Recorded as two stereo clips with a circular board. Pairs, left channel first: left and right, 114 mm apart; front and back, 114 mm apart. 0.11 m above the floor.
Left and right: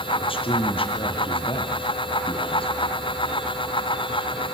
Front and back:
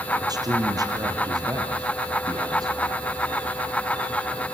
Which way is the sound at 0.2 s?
125° left.